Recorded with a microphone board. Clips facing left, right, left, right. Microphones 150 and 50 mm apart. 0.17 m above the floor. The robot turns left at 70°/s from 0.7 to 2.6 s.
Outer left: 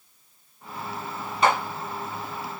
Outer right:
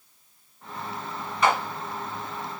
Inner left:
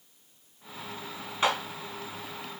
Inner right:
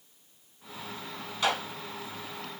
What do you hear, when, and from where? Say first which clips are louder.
1.4 s a clap: outer left 1 dB, inner left 2 dB; 30° left (ahead or behind), 1.2 m; by 1.6 s 35° left (ahead or behind), 1.2 m